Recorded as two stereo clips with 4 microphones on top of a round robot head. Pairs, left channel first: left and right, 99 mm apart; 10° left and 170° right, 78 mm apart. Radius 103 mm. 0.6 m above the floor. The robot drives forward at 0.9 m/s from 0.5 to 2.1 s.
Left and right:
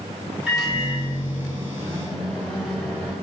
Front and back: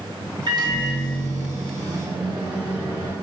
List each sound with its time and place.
0.5 s a microwave: 175° right, 1.1 m; by 3.1 s straight behind, 2.5 m